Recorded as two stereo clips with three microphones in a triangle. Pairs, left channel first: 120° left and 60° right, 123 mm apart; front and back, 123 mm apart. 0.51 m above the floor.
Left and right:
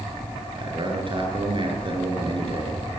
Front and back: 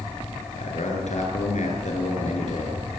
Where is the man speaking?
15° right, 9 m.